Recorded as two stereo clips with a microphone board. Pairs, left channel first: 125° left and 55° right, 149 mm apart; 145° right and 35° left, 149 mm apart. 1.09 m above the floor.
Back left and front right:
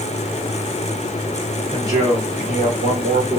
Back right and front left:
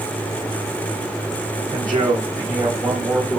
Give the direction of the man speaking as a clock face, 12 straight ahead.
1 o'clock.